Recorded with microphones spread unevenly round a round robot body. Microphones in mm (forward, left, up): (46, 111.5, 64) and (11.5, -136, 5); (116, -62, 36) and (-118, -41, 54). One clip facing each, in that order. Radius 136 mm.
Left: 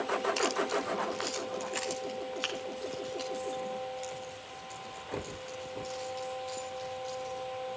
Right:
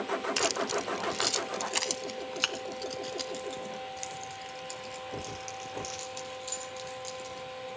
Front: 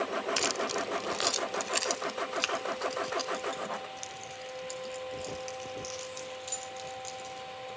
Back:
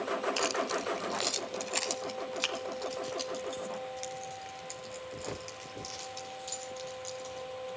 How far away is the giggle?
I don't hear a giggle.